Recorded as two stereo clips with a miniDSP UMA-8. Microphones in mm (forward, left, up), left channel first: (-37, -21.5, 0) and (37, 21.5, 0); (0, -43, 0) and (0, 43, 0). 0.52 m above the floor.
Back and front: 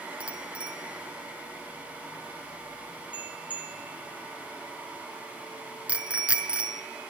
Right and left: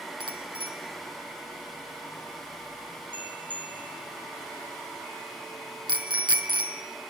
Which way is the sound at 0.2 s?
105° left.